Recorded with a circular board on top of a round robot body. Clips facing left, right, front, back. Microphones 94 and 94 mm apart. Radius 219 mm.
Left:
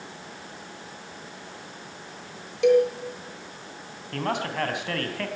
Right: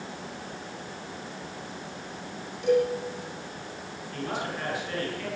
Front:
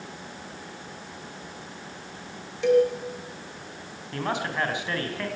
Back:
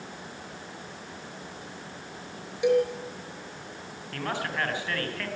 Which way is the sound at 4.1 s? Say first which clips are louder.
Left 5 dB, front 3 dB; 70° left.